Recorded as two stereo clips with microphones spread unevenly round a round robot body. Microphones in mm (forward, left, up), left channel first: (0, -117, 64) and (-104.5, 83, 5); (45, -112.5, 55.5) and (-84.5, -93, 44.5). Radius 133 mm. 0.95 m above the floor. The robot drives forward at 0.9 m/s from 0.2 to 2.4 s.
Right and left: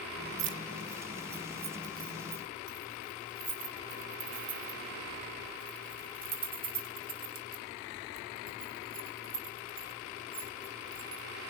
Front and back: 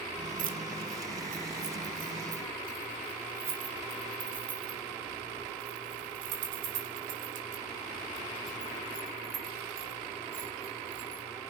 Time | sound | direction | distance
0.4 | keys jangling | 150° left | 0.9 m